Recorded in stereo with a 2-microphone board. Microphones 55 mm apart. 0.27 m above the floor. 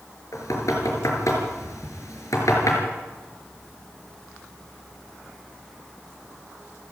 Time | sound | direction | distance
0.3 | knocking | 75° left (ahead or behind) | 4.5 m